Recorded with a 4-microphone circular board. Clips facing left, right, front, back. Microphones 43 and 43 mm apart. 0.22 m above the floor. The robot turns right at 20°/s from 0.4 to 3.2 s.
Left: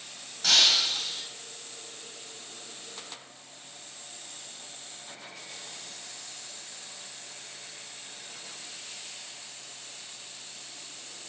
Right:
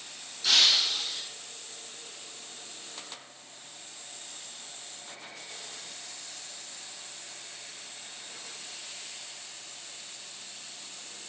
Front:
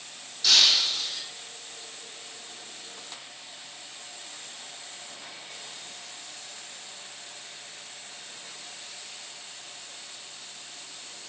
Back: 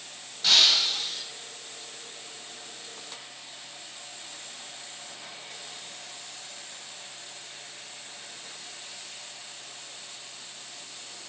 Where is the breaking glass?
120° left, 2.5 m; by 1.2 s 140° left, 2.5 m.